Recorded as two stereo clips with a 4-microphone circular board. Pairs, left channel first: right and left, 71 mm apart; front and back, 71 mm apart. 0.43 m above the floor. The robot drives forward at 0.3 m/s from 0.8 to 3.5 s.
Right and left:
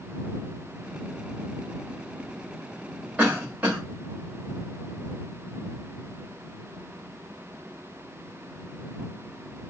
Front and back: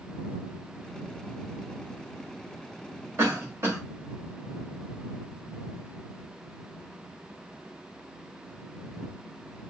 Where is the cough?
150° left, 1.6 m.